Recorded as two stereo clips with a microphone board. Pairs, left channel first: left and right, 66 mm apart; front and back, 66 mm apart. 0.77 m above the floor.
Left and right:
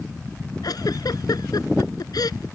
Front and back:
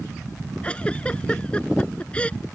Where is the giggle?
75° left.